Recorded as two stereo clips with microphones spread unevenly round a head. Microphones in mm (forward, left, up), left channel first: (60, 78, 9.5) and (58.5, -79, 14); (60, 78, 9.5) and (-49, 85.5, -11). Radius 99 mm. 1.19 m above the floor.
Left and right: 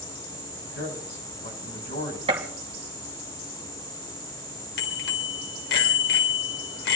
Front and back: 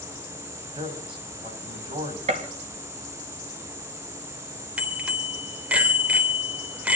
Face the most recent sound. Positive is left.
turn(degrees=95)